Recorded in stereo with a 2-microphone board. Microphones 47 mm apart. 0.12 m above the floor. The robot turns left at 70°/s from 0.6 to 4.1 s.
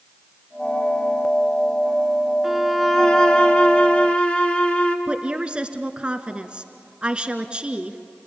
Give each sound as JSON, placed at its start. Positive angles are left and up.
{"t": 2.4, "sound": "a violin", "side_deg": -5, "distance_m": 1.8}
{"t": 5.1, "sound": "a woman speaking", "side_deg": -25, "distance_m": 1.5}